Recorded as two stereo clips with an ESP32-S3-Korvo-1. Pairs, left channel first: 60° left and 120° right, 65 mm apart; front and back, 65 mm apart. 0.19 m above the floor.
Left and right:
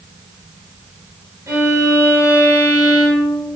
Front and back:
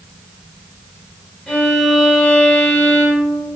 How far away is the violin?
About 1.4 m.